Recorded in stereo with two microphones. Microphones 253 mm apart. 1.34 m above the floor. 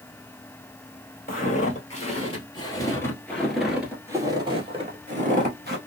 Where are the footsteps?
35° left (ahead or behind), 1.9 m; by 5.8 s 40° right (ahead or behind), 1.6 m.